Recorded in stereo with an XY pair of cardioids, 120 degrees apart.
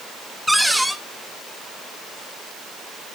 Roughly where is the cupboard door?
Ahead.